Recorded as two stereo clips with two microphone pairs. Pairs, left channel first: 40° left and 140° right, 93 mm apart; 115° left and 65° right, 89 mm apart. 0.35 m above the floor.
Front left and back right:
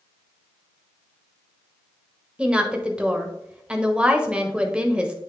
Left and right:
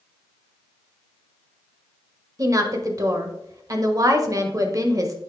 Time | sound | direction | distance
2.4 | a woman speaking | 65° right | 1.1 m